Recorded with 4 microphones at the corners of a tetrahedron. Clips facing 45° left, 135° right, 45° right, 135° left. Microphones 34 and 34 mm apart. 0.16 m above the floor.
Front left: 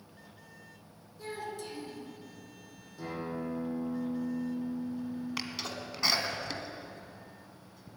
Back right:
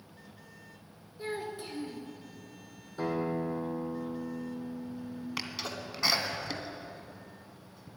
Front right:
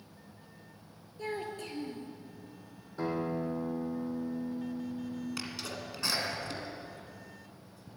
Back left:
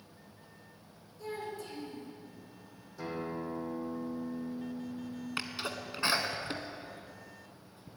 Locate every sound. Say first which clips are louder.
1.2 s a child speaking: back right 2 dB, front right 2 dB; 75° right, 2 m
3.0 s a guitar: back right 6 dB, front right 5 dB; 100° right, 2.5 m
5.4 s a sneeze: even, back left 2 dB; 140° left, 1.3 m